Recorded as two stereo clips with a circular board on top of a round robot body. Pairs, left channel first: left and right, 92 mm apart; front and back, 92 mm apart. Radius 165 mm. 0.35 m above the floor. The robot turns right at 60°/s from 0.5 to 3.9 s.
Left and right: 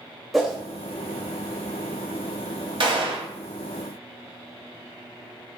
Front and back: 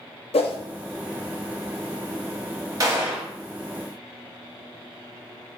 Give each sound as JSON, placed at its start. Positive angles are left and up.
{"t": 0.3, "sound": "a whoosh", "azimuth_deg": 0, "distance_m": 0.5}
{"t": 2.8, "sound": "a gunshot", "azimuth_deg": -125, "distance_m": 0.8}